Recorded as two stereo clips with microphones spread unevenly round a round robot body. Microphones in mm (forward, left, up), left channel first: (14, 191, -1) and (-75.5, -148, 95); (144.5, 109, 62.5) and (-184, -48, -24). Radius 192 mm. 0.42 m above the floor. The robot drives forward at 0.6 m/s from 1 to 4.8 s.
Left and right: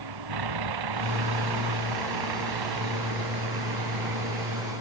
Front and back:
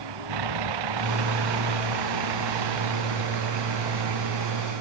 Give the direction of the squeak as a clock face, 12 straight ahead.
I don't hear a squeak.